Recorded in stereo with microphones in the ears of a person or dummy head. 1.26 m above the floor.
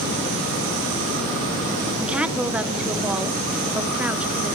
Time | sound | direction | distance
2.0 | a woman speaking | 5° right (ahead or behind) | 0.9 m